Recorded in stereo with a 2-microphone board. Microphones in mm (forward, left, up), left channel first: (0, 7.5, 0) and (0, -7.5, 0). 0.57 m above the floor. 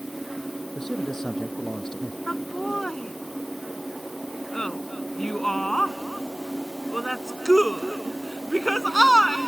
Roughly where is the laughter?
Left.